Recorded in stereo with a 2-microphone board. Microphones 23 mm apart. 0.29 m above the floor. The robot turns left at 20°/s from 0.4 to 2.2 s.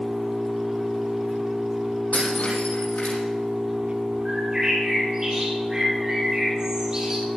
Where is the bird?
20° right (ahead or behind), 3.5 m.